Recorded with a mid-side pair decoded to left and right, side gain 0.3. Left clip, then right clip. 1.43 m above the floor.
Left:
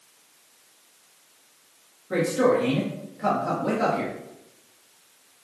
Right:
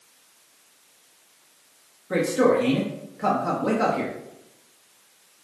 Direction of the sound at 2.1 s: 40° right.